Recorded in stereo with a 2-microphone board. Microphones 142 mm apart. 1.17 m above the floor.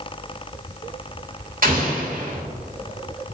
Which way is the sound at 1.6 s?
70° right (ahead or behind).